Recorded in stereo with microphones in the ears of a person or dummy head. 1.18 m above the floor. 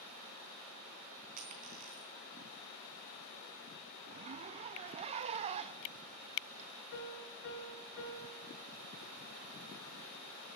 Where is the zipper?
30° right (ahead or behind), 0.6 m.